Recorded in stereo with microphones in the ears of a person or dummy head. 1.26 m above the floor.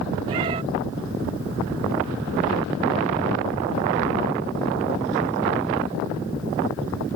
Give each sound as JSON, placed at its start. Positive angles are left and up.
{"t": 0.3, "sound": "a cat meowing", "side_deg": -25}